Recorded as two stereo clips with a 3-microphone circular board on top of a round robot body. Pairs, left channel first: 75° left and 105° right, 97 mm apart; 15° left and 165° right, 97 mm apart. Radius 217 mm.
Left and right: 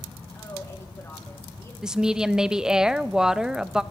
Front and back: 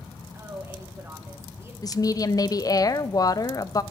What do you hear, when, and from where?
0.3 s a woman speaking: 135° left, 1.8 m
1.8 s a woman speaking: 25° right, 0.7 m